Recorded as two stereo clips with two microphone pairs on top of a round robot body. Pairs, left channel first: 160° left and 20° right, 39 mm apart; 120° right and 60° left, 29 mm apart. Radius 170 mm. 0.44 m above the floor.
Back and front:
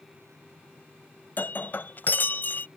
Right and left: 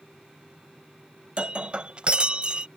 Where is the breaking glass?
115° left.